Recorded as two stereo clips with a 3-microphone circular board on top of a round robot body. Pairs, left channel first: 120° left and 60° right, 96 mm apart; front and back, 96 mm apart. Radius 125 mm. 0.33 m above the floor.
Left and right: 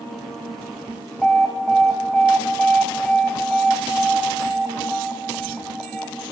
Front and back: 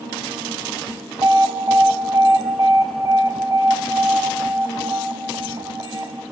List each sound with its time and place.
1.2 s an alarm: 160° right, 2.5 m